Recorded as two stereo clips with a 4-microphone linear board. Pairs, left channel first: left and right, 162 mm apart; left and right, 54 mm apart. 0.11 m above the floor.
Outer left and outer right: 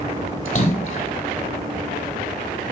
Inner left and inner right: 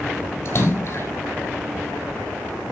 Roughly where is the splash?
Left.